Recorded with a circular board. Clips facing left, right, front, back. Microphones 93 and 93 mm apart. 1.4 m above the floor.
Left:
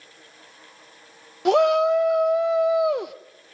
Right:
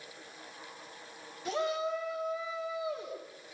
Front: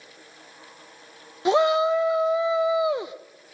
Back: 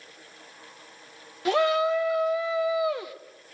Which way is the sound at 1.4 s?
70° left.